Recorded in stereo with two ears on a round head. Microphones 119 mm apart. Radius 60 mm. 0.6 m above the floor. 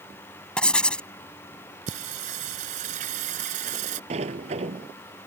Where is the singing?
60° right (ahead or behind).